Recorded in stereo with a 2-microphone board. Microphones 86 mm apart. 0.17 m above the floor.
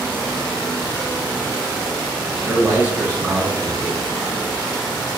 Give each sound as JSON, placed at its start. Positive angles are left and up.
{"t": 2.4, "sound": "a man speaking", "side_deg": -20, "distance_m": 1.5}